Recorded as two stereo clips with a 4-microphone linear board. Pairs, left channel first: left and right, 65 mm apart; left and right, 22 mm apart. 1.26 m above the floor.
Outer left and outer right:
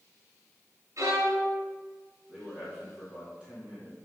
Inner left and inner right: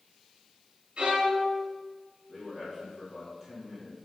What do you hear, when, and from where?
1.0 s a violin: 60° right (ahead or behind), 3.5 m
2.3 s a man speaking: 15° right (ahead or behind), 3 m